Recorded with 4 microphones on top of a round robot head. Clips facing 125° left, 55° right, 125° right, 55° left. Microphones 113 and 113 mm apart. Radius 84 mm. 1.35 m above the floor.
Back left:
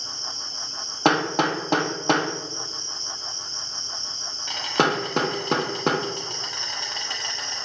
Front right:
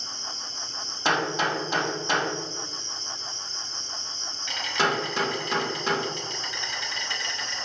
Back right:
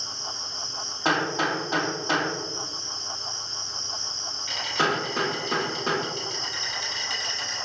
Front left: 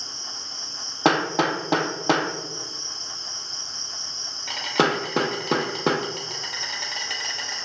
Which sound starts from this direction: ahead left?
An insect, at 0.0 s.